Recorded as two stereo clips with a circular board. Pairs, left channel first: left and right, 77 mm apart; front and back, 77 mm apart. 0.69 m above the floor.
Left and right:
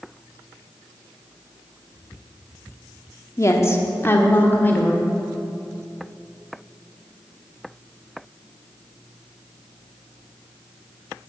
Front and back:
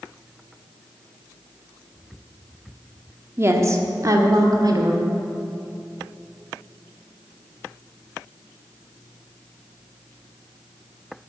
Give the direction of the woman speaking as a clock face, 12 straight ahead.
8 o'clock.